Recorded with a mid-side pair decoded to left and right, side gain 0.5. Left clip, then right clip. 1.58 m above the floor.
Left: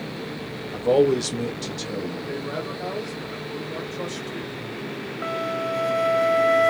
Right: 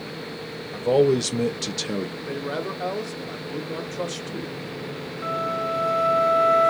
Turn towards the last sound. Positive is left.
turn(degrees=45)